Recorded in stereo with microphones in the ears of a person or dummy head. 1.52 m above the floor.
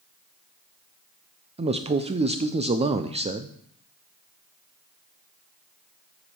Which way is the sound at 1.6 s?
30° right (ahead or behind).